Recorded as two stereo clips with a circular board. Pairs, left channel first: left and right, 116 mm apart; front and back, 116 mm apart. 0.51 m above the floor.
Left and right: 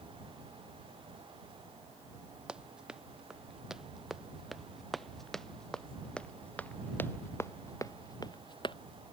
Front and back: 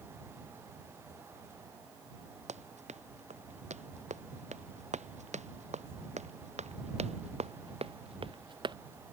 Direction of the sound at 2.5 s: 170° right.